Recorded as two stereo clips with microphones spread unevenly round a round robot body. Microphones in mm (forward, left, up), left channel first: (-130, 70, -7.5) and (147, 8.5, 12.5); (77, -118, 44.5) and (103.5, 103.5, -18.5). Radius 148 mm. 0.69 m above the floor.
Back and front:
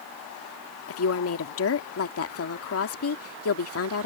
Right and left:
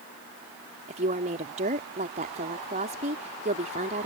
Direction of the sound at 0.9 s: 135° left.